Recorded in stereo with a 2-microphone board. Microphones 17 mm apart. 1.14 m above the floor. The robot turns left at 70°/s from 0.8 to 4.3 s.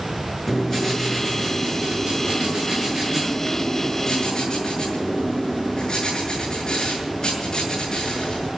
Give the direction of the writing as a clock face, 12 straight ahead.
11 o'clock.